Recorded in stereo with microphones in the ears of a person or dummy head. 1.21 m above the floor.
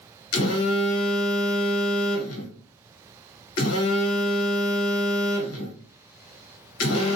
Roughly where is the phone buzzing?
Left.